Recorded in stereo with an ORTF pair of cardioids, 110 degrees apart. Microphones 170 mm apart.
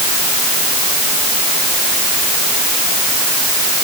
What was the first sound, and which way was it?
Only background noise.